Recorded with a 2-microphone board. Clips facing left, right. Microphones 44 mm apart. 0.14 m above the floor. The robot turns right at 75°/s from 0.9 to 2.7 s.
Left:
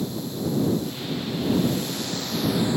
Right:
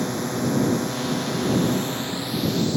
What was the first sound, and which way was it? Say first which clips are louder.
A drone: right 4 dB; 115° right.